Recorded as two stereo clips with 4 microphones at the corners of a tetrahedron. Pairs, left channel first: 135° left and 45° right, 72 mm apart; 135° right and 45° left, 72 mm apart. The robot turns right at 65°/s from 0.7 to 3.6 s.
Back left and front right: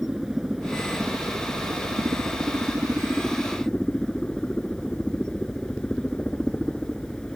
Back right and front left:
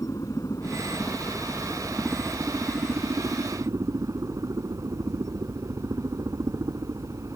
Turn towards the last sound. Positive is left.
turn(degrees=60)